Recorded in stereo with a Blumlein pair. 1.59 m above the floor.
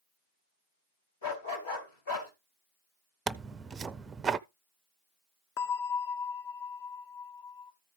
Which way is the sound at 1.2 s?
65° left.